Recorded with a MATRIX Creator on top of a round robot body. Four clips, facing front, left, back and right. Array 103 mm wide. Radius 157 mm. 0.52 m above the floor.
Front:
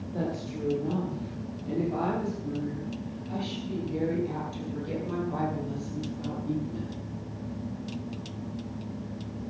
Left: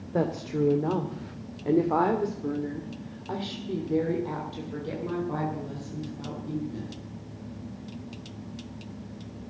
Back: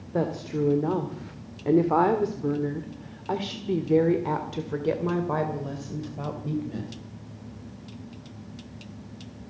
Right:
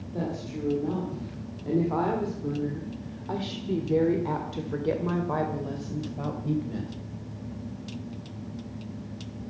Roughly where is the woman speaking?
Behind left.